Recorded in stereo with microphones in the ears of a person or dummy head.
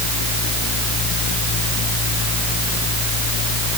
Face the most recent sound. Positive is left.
No sound to turn to.